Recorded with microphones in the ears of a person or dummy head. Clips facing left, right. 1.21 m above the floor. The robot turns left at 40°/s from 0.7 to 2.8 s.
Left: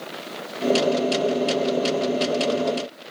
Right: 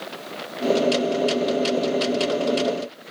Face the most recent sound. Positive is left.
No sound to turn to.